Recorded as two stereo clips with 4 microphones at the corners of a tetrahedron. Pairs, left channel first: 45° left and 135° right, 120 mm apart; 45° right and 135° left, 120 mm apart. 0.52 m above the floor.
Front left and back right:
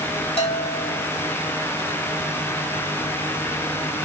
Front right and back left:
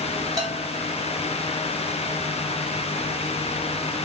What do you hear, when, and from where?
0.4 s a bell: 80° left, 3 m